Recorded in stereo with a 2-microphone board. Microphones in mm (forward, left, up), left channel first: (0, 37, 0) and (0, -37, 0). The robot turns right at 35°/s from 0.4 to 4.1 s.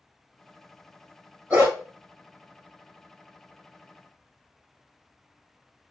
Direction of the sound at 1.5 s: 25° right (ahead or behind).